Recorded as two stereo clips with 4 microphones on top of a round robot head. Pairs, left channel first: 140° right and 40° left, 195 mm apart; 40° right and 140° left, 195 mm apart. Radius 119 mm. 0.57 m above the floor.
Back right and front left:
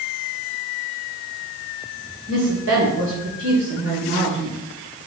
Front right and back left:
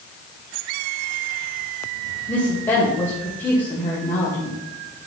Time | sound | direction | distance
2.3 | a woman speaking | 40° left | 2.5 m